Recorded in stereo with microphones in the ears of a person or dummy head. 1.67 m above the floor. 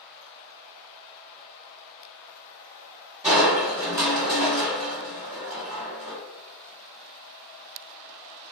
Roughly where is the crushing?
Centre.